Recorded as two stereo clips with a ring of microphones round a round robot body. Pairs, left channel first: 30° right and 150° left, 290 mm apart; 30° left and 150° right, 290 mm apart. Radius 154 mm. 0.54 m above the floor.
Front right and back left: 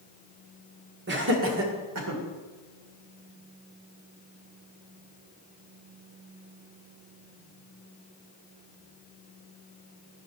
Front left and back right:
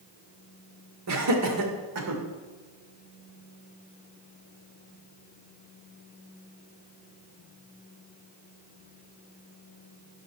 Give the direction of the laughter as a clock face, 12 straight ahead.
5 o'clock.